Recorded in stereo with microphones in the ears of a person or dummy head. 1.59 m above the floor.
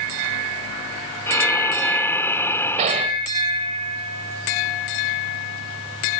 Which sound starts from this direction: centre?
Breathing, at 1.3 s.